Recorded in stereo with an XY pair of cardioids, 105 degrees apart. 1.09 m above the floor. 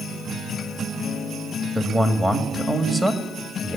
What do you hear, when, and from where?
1.8 s a man speaking: 20° right, 1.9 m